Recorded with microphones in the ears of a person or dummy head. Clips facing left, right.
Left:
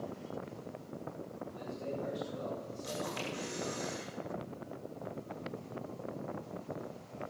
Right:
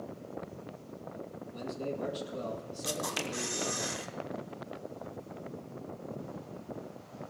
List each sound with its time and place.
1.5 s a man speaking: 50° right (ahead or behind), 2 m
2.8 s a camera shutter: 70° right (ahead or behind), 1.1 m